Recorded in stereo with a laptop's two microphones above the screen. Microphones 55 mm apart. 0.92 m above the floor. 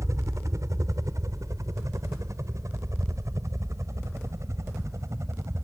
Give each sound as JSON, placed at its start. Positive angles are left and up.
{"t": 0.0, "sound": "a helicopter", "side_deg": -70}